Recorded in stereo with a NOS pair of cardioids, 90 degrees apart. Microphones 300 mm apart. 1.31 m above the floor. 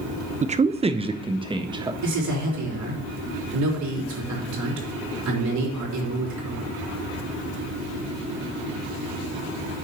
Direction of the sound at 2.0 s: 70° right.